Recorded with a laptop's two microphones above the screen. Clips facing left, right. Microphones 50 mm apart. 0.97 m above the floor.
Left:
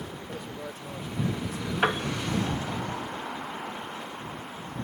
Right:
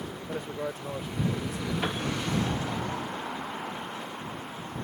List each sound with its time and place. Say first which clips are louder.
0.3 s a man speaking: right 8 dB; 30° right (ahead or behind)
1.8 s a piano: left 8 dB; 60° left (ahead or behind)